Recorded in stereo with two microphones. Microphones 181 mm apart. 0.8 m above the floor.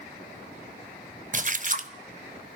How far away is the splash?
About 0.6 m.